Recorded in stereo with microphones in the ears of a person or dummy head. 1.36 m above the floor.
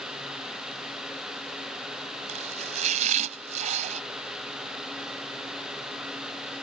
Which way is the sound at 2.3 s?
40° right (ahead or behind).